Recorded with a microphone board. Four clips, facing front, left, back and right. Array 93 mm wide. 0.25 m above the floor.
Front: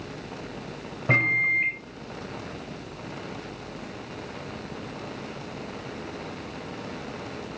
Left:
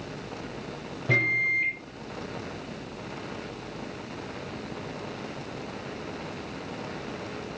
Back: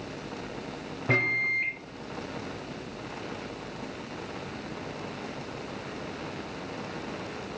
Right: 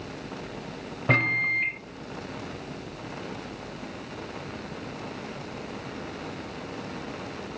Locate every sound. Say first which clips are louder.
1.1 s a microwave: right 1 dB, front 4 dB; 85° right, 1.2 m